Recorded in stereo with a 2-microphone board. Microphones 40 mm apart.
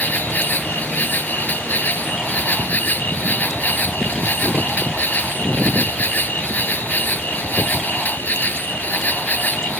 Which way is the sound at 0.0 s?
45° left (ahead or behind).